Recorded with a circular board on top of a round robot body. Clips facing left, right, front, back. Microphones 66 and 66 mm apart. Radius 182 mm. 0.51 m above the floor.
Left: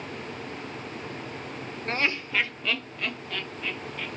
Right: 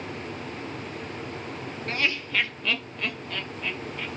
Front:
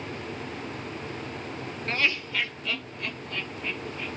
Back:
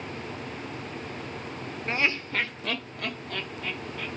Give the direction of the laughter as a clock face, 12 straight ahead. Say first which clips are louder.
Left 1 dB, even; 8 o'clock.